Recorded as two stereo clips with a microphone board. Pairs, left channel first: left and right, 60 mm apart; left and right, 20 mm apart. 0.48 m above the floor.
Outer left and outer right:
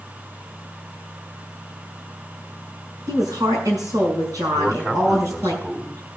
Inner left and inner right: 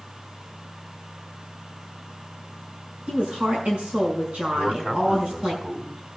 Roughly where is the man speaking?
Right.